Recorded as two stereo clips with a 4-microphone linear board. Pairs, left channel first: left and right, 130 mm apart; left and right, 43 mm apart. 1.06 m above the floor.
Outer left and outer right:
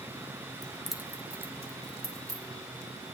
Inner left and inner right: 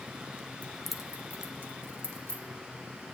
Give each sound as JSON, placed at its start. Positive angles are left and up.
{"t": 0.6, "sound": "keys jangling", "side_deg": 30, "distance_m": 0.6}